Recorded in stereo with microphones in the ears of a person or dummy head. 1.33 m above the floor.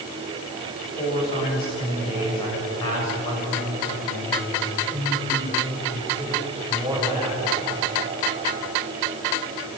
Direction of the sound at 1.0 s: 45° left (ahead or behind).